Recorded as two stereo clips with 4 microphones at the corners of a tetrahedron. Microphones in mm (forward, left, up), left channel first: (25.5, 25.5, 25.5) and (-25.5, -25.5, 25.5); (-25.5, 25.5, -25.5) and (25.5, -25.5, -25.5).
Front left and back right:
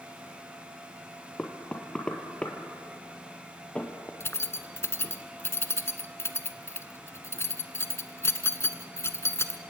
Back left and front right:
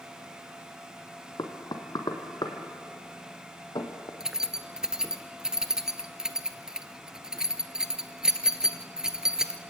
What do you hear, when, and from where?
1.4 s knocking: 120° left, 2.5 m
4.2 s keys jangling: 30° left, 1.1 m